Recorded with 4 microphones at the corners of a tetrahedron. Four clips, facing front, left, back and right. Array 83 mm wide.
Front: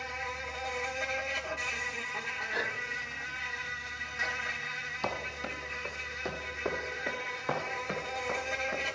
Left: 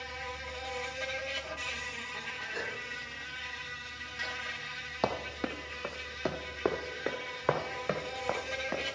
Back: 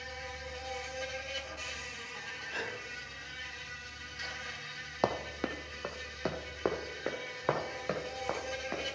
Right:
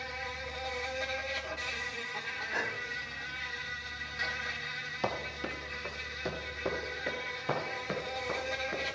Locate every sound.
0.0 s an insect: 15° right, 0.8 m
2.5 s a gasp: 65° right, 1.0 m
5.0 s running footsteps: 150° left, 1.1 m; by 8.8 s 115° left, 3 m